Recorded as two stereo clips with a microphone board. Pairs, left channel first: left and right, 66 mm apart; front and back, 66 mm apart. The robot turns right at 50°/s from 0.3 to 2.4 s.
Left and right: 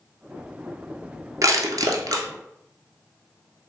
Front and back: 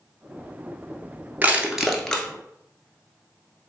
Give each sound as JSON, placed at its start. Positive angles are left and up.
{"t": 1.4, "sound": "crushing", "azimuth_deg": -115, "distance_m": 0.6}